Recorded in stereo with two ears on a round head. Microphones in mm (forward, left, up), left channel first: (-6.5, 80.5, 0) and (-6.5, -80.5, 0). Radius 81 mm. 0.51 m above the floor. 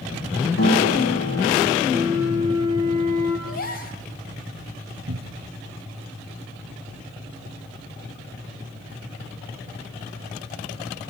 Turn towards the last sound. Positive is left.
turn(degrees=-85)